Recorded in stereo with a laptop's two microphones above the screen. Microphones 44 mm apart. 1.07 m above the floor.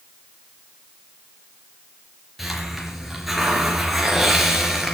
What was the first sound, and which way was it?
A hiss, centre (ahead or behind).